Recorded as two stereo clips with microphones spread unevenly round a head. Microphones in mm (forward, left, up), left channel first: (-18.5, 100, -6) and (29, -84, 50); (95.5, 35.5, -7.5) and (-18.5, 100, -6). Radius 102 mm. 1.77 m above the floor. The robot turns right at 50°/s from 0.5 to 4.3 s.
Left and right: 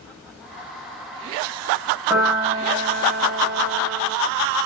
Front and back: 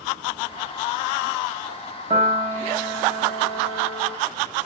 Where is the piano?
155° right, 1.2 m; by 4.2 s 50° right, 1.2 m.